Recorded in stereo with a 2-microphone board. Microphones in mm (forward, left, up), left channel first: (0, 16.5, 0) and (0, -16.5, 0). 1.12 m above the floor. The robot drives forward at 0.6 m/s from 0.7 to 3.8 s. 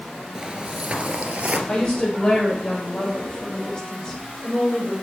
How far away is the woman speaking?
About 5.5 m.